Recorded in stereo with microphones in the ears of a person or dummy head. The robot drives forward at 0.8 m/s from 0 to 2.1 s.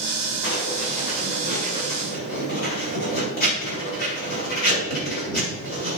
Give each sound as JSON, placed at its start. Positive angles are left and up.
{"t": 0.4, "sound": "writing", "side_deg": 70, "distance_m": 4.0}